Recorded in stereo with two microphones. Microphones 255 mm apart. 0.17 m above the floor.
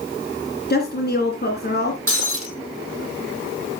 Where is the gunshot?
No gunshot in this recording.